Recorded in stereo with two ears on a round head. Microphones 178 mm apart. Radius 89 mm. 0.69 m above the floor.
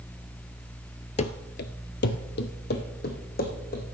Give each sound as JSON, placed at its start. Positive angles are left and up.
{"t": 1.2, "sound": "running footsteps", "side_deg": 35, "distance_m": 0.9}